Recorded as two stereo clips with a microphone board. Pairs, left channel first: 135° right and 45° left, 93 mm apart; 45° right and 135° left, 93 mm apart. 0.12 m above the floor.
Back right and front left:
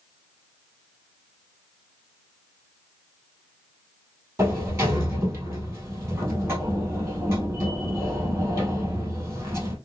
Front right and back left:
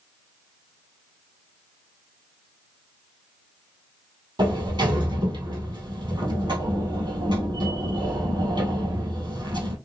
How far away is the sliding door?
About 1.3 m.